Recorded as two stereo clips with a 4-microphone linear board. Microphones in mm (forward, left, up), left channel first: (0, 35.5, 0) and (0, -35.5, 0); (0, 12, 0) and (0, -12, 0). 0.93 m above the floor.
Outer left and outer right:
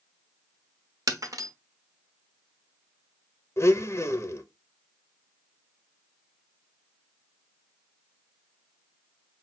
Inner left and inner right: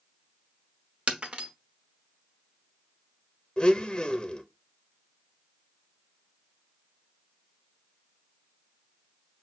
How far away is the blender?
About 0.6 m.